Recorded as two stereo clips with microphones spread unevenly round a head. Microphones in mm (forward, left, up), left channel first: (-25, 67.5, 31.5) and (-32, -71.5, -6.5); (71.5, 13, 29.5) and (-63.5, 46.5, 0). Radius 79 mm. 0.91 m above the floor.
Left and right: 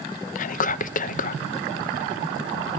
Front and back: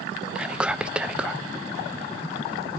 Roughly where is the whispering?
Left.